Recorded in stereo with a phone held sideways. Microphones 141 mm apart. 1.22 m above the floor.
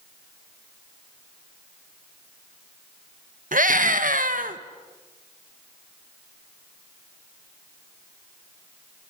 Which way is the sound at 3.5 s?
75° right (ahead or behind).